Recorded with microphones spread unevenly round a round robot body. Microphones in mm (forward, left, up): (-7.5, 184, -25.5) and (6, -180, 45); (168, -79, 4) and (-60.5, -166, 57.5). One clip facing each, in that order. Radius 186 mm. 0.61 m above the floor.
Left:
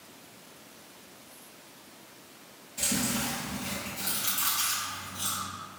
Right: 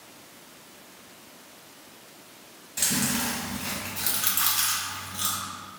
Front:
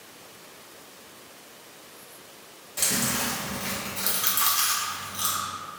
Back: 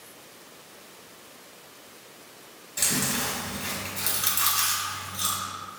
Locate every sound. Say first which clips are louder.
2.8 s chewing: right 2 dB, even; 85° right, 1.6 m